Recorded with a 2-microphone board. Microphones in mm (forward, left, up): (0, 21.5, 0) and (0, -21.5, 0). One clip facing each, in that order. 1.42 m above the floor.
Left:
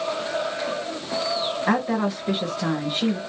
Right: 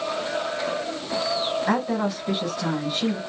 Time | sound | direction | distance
1.7 | a woman speaking | 35° left (ahead or behind) | 1.7 m